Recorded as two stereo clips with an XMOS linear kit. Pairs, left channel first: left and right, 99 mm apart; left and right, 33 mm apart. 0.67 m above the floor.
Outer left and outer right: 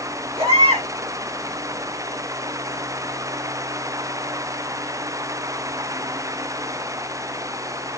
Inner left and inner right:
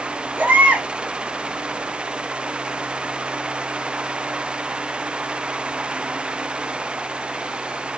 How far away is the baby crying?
About 3.5 m.